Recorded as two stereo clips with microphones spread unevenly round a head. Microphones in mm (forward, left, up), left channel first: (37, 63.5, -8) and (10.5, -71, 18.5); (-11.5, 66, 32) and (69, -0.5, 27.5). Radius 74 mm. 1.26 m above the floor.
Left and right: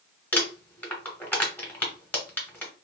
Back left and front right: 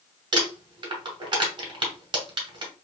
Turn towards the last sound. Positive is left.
turn(degrees=-5)